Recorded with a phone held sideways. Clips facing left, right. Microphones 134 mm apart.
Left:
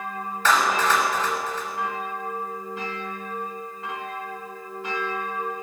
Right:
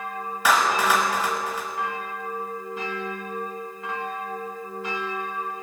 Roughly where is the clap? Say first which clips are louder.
Even; centre.